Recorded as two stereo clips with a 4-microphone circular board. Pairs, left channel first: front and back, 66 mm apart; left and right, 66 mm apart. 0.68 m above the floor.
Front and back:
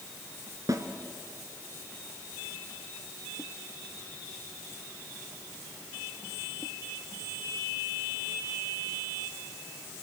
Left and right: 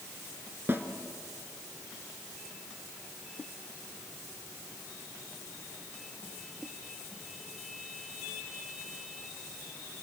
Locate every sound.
0.7 s a snare drum: 145° right, 2.0 m